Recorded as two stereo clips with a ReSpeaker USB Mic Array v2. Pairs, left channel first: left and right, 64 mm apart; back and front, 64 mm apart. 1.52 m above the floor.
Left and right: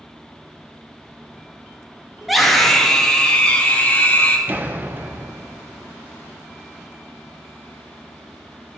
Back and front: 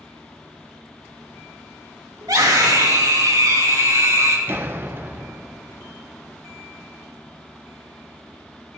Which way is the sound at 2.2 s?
5° right.